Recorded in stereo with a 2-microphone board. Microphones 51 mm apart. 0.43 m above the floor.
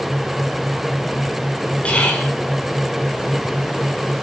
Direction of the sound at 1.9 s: 25° left (ahead or behind).